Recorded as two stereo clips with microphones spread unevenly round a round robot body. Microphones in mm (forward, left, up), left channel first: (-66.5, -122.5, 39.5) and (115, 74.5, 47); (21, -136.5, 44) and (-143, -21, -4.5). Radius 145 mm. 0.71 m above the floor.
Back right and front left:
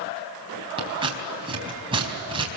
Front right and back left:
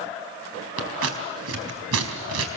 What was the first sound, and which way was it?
Scissors, 120° left.